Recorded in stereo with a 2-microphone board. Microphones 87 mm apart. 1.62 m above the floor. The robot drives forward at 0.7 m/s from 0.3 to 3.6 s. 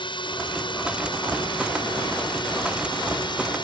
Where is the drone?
70° left (ahead or behind); by 3.6 s 65° left (ahead or behind).